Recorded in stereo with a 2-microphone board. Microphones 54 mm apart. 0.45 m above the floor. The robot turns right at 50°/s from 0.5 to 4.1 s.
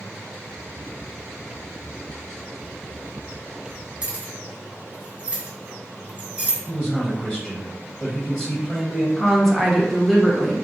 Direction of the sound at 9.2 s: 5° left (ahead or behind).